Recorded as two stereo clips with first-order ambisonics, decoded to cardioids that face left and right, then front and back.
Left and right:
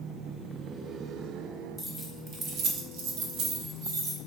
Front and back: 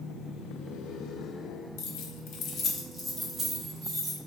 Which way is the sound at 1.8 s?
Straight ahead.